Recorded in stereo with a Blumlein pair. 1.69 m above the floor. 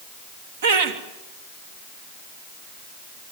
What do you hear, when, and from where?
0.6 s laughter: 55° right, 3 m